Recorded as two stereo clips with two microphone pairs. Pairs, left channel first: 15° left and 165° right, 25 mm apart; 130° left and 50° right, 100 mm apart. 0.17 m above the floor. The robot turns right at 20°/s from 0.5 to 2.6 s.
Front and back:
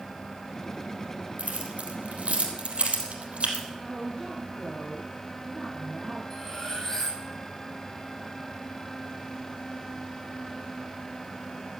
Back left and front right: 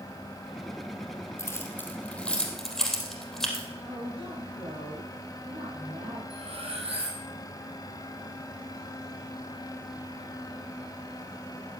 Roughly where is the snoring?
No snoring in this recording.